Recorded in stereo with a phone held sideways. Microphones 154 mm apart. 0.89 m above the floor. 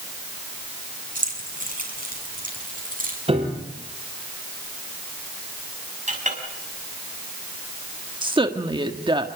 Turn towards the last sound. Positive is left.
turn(degrees=-30)  # may be behind; listen again after turning